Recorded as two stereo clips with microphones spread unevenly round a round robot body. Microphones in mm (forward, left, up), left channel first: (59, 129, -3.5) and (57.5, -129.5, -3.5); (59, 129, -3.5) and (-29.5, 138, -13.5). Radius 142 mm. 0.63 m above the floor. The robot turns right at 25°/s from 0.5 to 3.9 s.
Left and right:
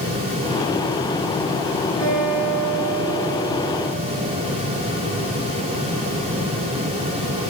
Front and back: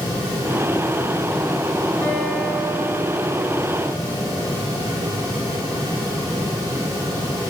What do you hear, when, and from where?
2.0 s a guitar: 50° right, 5 m; by 4.3 s straight ahead, 5 m